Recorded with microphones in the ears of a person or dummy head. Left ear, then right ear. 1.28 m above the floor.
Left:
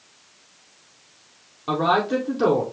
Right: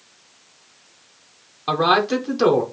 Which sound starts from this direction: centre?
A man speaking, at 1.7 s.